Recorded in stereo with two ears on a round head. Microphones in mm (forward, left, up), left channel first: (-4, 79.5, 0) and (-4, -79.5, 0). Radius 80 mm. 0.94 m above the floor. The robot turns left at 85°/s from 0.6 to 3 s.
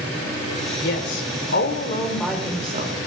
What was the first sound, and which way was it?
A woman speaking, 125° left.